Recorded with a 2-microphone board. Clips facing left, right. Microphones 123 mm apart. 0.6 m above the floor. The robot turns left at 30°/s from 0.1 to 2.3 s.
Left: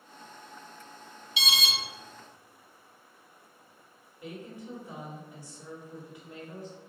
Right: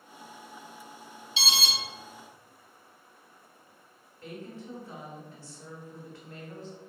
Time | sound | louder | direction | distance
1.4 | an alarm | even | 30° right (ahead or behind) | 1.2 m
4.2 | a woman speaking | even | 15° left (ahead or behind) | 1.4 m